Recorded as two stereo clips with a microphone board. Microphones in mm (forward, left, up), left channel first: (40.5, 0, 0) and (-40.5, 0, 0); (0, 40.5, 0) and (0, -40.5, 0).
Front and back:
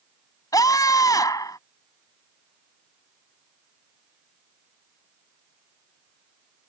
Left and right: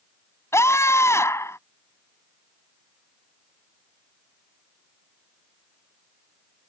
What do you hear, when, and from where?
0.5 s a scream: 40° left